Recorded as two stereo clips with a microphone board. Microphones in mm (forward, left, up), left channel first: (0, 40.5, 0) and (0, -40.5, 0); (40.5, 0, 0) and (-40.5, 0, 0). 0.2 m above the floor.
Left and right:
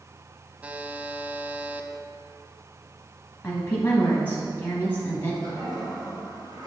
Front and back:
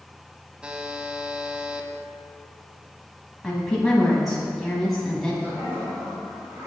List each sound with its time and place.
0.6 s a buzzer: 125° right, 0.5 m
3.4 s a woman speaking: 85° left, 1.2 m
5.4 s a toilet flushing: 125° right, 2.5 m